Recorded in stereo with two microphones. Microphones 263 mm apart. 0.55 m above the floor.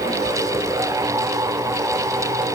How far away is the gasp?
I don't hear a gasp.